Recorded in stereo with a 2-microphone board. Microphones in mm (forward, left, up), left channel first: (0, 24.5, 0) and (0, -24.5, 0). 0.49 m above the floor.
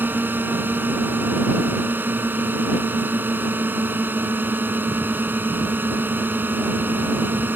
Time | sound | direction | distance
0.0 | a drone | 45° right (ahead or behind) | ?